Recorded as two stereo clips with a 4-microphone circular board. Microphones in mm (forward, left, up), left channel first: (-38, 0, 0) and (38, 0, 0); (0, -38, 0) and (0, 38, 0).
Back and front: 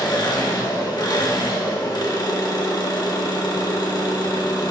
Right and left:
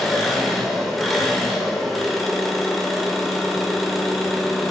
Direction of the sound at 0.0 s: Straight behind.